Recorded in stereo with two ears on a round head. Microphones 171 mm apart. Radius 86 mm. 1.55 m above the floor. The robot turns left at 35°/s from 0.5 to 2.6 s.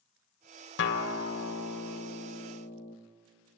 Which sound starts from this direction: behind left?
A guitar, at 0.8 s.